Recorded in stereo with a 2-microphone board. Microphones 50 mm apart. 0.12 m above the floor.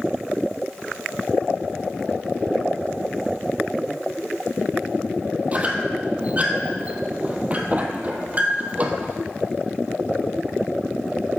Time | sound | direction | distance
5.5 | a squeak | 30° right (ahead or behind) | 1.2 m